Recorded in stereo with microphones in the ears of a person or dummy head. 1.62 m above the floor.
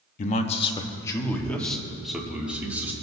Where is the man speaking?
40° left (ahead or behind), 1.0 m; by 2.9 s 15° right (ahead or behind), 2 m.